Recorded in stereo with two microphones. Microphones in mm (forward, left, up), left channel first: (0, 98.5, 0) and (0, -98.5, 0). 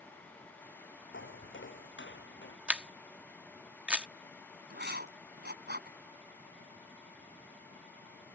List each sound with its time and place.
1.1 s footsteps: 70° left (ahead or behind); by 2.6 s 65° left (ahead or behind)
2.7 s a camera shutter: 5° right (ahead or behind)
4.7 s writing: 60° right (ahead or behind)